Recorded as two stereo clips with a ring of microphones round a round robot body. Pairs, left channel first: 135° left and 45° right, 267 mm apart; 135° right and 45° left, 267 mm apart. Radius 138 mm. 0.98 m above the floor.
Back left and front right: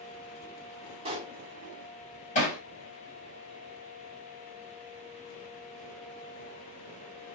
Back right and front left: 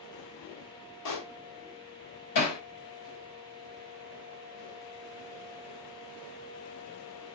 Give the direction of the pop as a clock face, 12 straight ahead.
4 o'clock.